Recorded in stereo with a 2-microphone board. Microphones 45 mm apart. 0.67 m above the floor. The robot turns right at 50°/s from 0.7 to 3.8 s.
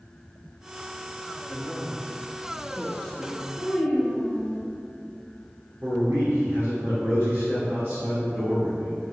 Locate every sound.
1.5 s a man speaking: 20° right (ahead or behind), 0.9 m; by 3.5 s 20° left (ahead or behind), 0.9 m
3.6 s a child speaking: 30° left (ahead or behind), 1.8 m; by 4.6 s 20° left (ahead or behind), 1.8 m
5.8 s a man speaking: 60° right (ahead or behind), 2 m